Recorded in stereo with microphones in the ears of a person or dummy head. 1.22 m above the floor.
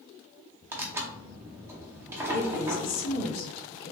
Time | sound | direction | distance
0.7 | tearing paper | 10° right (ahead or behind) | 0.6 m
2.3 | a woman speaking | 80° left | 1.2 m